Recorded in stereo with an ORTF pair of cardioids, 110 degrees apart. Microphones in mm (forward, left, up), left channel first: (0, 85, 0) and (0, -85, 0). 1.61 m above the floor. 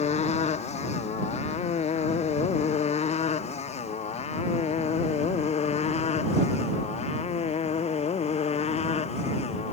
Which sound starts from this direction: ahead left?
A motorcycle, at 0.0 s.